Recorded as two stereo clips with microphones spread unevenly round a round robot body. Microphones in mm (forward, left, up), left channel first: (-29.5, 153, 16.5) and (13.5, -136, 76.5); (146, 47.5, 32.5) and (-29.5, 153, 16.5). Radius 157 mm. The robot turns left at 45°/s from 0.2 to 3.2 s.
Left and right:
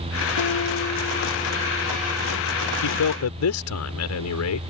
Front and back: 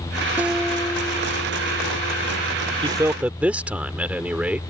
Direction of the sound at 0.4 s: 70° left.